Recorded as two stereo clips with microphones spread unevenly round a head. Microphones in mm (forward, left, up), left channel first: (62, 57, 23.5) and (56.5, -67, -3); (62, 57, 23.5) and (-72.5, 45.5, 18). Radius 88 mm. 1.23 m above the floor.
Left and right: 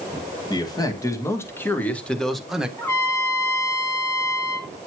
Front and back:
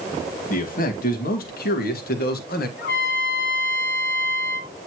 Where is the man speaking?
25° left, 2 m; by 2.7 s 15° right, 1.6 m.